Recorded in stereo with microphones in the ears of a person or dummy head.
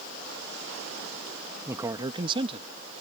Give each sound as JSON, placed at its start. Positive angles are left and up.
{"t": 1.7, "sound": "a man speaking", "side_deg": -15}